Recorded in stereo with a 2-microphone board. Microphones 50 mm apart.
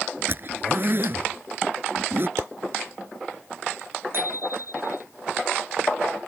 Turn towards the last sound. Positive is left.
turn(degrees=-50)  # may be behind; listen again after turning